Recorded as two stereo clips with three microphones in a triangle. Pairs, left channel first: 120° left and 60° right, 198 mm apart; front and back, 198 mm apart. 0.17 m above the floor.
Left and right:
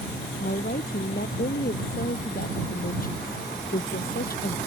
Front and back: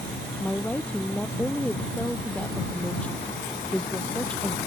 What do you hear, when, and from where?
0.4 s a woman speaking: 85° left